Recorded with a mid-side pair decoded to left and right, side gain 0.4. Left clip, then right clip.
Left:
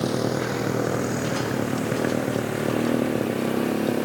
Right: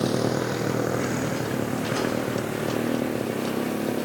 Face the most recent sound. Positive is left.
turn(degrees=30)